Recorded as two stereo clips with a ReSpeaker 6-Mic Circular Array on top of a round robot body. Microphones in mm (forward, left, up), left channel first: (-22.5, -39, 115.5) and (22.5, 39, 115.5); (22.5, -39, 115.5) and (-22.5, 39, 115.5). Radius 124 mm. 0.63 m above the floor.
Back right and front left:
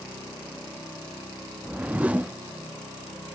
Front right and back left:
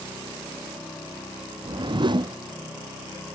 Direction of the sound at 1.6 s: 135° left.